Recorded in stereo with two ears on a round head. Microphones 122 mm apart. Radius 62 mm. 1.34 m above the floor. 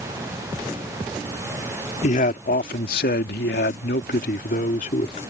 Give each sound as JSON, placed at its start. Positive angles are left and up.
{"t": 2.0, "sound": "a man speaking", "side_deg": 60}